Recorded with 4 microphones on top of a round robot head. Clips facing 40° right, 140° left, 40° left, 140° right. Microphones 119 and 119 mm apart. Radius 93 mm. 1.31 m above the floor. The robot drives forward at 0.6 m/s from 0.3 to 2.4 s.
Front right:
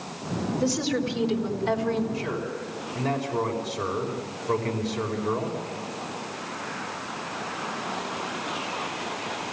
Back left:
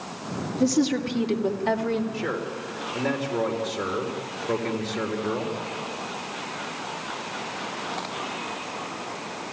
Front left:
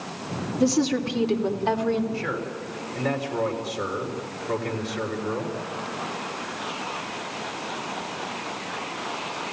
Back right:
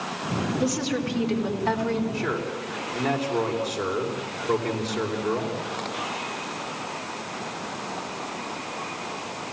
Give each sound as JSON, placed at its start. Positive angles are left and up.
{"t": 0.6, "sound": "a woman speaking", "azimuth_deg": 95, "distance_m": 2.5}
{"t": 2.1, "sound": "a man speaking", "azimuth_deg": 150, "distance_m": 4.0}